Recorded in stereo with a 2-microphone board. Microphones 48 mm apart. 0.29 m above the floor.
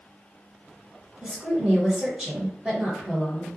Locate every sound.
1.2 s a woman speaking: 15° right (ahead or behind), 1.7 m